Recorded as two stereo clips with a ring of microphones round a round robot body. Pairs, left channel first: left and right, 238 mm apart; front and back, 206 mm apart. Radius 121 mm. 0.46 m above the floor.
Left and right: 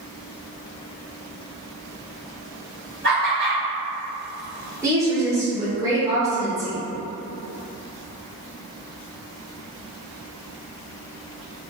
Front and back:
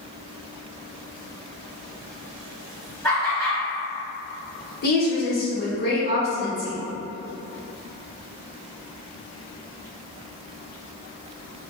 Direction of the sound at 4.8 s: 15° right.